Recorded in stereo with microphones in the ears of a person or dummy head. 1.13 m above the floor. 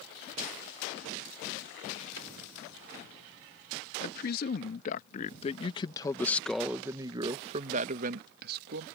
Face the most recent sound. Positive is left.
turn(degrees=-60)  # may be behind; listen again after turning